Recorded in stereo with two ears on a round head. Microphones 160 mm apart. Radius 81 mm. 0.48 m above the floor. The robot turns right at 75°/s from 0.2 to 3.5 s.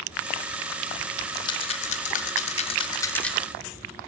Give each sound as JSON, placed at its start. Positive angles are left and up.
{"t": 1.3, "sound": "a rattle", "side_deg": 20, "distance_m": 0.5}